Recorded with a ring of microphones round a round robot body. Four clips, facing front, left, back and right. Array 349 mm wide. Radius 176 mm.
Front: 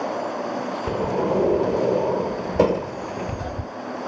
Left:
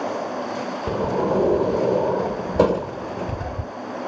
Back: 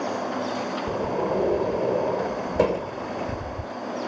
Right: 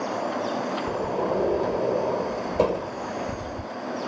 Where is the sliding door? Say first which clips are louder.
Left 7 dB, front 4 dB; 55° left.